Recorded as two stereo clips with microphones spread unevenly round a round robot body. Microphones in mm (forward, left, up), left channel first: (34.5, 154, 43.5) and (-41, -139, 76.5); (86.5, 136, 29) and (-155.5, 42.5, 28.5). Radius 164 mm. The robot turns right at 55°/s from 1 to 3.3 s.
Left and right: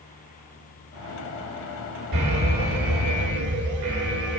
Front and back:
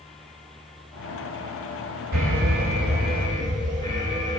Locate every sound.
2.1 s an alarm: 120° right, 2.5 m; by 4.4 s 55° right, 2.5 m